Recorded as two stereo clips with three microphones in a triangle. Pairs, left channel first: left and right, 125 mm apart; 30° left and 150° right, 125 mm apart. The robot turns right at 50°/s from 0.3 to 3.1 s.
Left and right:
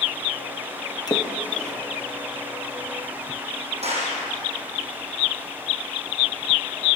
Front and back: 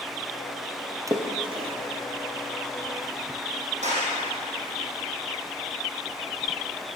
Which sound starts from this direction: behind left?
A splash, at 1.1 s.